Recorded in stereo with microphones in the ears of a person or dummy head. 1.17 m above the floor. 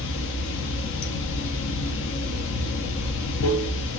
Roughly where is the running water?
Left.